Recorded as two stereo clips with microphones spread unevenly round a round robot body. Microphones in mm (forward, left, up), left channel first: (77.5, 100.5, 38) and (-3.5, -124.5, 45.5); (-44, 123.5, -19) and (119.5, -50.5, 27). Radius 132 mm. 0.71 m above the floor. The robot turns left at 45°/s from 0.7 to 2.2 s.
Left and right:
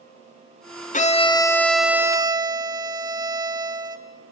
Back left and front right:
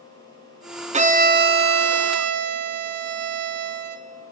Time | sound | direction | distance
0.9 | a violin | 20° left | 1.6 m